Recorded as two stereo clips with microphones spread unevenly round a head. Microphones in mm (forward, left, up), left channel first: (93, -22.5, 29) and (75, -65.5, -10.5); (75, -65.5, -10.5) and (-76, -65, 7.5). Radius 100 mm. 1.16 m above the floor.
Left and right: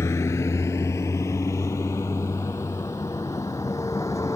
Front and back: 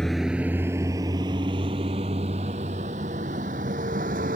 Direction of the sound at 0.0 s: 90° left.